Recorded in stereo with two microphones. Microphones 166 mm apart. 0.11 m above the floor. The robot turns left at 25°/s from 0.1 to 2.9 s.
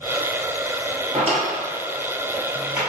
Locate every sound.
1.1 s a drawer: 40° right (ahead or behind), 1.5 m; by 2.8 s 5° right (ahead or behind), 1.5 m